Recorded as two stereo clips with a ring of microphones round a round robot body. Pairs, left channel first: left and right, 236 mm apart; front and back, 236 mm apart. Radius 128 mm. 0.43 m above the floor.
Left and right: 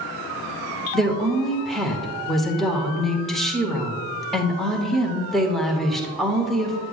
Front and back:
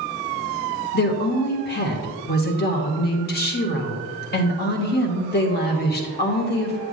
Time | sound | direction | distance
0.9 | a woman speaking | straight ahead | 1.1 m